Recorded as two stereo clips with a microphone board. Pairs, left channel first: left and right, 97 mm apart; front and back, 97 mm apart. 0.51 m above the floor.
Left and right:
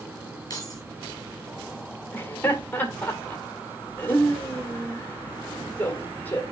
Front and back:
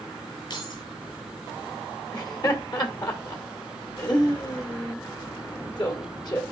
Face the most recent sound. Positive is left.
turn(degrees=20)